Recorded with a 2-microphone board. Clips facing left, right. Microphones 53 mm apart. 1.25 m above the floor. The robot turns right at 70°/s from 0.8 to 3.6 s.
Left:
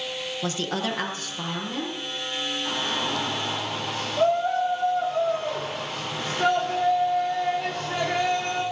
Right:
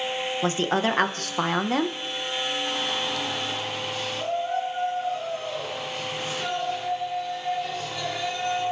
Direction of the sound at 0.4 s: 150° right.